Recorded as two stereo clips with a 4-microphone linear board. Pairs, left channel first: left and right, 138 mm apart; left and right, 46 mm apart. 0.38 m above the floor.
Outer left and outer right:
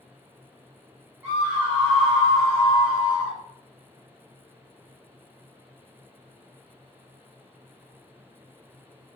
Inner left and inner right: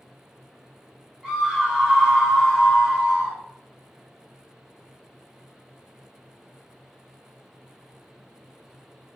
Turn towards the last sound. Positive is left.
turn(degrees=20)  # may be behind; listen again after turning